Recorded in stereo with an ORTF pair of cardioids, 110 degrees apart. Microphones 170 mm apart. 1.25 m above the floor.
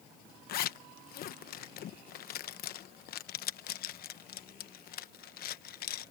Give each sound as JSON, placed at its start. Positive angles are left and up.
{"t": 0.5, "sound": "a zipper", "azimuth_deg": 65}